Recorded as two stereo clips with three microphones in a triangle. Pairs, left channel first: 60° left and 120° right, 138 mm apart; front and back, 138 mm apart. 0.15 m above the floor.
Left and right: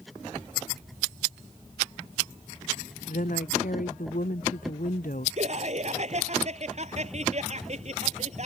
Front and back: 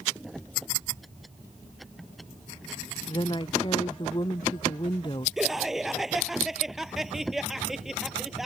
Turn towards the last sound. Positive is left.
turn(degrees=-90)